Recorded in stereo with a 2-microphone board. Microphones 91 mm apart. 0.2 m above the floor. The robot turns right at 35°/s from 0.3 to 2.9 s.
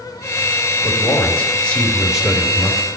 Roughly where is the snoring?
No snoring in this recording.